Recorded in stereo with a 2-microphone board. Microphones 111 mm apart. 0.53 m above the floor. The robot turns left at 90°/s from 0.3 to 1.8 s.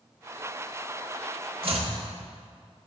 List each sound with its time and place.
1.6 s chopping: 50° right (ahead or behind), 0.9 m; by 1.9 s 65° right (ahead or behind), 0.9 m